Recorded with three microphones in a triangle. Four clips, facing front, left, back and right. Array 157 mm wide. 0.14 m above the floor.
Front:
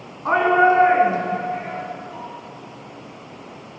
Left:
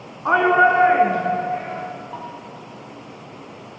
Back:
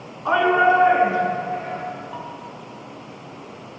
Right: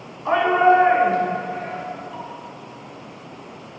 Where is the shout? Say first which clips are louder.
Even, front 1 dB; 75° left, 1.6 m.